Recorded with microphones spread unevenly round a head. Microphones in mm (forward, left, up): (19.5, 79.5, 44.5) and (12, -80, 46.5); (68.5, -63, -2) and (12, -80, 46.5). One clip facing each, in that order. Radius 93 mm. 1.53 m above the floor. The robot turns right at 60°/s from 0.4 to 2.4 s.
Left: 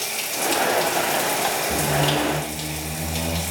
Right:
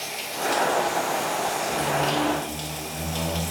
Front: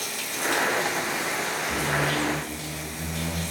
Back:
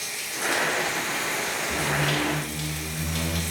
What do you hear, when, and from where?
0.0 s running water: 50° left, 2 m; by 3.5 s 170° left, 2 m
1.7 s a squeak: 125° left, 1.5 m; by 3.4 s 170° left, 1.5 m